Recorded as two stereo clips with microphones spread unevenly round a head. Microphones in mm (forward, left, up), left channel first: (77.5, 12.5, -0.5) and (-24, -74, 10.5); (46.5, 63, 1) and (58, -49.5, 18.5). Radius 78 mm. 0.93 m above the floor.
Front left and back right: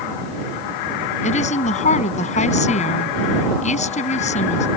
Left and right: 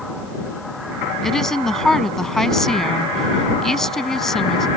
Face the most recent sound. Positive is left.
turn(degrees=10)